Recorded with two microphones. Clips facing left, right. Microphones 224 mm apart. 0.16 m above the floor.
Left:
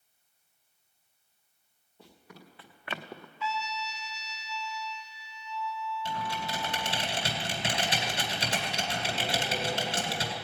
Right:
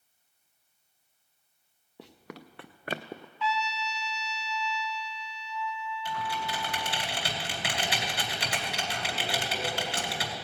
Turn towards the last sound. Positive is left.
turn(degrees=25)  # may be behind; listen again after turning